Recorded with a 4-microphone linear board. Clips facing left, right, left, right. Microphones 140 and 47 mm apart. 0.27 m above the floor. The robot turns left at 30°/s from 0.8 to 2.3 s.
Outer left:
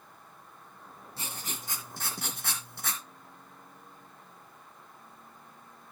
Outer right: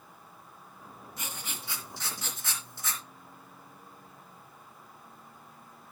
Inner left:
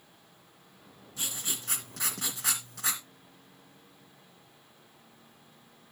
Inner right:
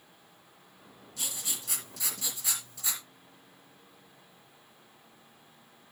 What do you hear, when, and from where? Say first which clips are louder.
1.2 s writing: outer left 1 dB, inner left 2 dB; 145° left, 2.5 m; by 3.0 s 110° left, 2.5 m